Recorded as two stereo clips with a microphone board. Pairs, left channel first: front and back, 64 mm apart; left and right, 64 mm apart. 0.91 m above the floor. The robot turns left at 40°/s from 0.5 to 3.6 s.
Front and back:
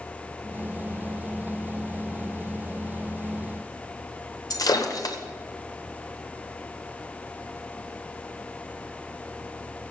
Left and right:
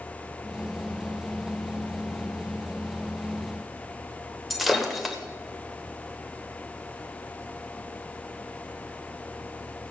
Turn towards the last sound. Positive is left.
turn(degrees=0)